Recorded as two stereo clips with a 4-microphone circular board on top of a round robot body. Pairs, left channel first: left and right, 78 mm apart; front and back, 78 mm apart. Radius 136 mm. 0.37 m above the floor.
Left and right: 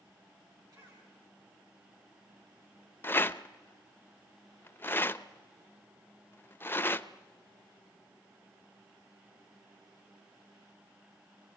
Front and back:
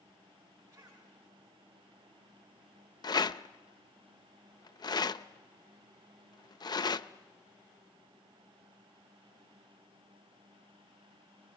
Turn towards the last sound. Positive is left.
turn(degrees=30)